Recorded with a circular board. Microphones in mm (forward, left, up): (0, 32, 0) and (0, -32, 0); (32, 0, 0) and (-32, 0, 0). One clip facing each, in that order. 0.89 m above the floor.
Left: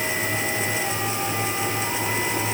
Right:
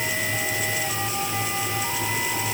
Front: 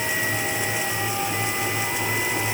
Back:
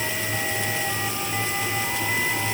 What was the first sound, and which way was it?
Only background noise.